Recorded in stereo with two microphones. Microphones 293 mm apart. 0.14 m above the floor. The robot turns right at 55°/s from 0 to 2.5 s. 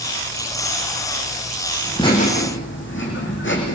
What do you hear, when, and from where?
1.8 s laughter: 5° left, 9 m; by 3.8 s 40° left, 9 m